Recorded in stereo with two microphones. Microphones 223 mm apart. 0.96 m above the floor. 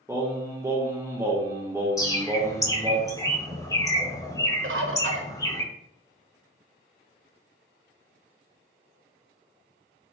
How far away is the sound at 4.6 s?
About 0.5 m.